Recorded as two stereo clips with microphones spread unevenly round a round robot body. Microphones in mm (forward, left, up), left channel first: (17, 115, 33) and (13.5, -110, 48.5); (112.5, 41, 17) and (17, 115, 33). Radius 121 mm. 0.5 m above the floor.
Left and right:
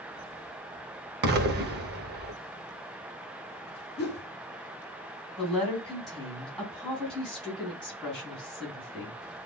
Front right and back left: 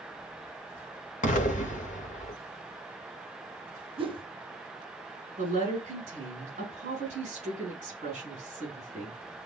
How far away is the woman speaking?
About 3.5 m.